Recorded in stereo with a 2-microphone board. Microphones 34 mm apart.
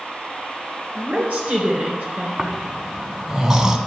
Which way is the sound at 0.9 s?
50° right (ahead or behind).